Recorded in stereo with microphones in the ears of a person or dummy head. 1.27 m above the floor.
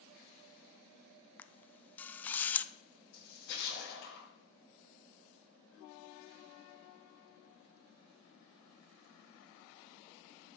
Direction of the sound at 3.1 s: 70° left (ahead or behind).